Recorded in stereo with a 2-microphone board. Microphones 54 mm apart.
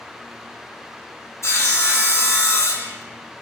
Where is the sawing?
65° left (ahead or behind), 2.5 m.